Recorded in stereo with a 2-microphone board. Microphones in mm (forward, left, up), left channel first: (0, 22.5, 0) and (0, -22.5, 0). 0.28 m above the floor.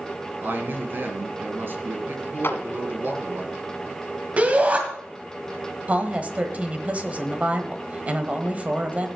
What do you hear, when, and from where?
0.4 s a man speaking: 45° right (ahead or behind), 2 m
2.4 s a clap: 55° left (ahead or behind), 1.5 m
4.4 s a shout: 30° right (ahead or behind), 1.8 m
5.9 s a woman speaking: 30° right (ahead or behind), 1.2 m